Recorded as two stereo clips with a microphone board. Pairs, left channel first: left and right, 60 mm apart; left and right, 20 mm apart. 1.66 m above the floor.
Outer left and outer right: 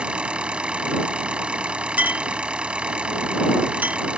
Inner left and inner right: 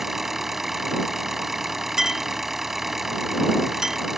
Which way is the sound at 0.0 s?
20° right (ahead or behind).